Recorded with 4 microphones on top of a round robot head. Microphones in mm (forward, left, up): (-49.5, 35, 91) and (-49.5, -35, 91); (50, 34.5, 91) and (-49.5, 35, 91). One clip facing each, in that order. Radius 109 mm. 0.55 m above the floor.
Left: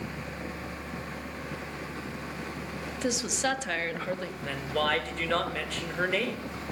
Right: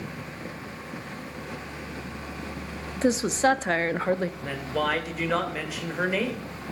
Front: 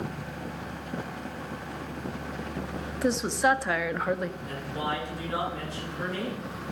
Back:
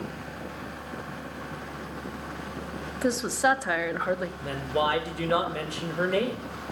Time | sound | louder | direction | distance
3.0 | a woman speaking | right 8 dB, even | 95° right | 0.8 m
4.4 | a woman speaking | right 2 dB, back 6 dB | 170° right | 2.5 m